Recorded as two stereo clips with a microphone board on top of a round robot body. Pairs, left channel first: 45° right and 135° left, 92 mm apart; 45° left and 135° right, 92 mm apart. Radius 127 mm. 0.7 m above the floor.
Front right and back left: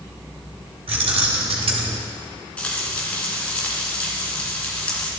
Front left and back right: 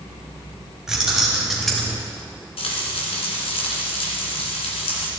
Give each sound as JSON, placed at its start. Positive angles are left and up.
{"t": 0.9, "sound": "keys jangling", "azimuth_deg": 140, "distance_m": 3.5}
{"t": 2.6, "sound": "frying", "azimuth_deg": 35, "distance_m": 3.0}